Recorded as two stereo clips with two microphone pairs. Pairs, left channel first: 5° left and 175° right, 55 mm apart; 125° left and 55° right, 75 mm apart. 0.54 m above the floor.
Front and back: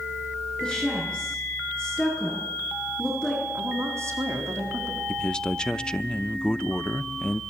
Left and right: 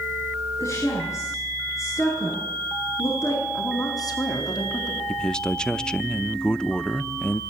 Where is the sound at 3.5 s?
150° left, 4.5 m.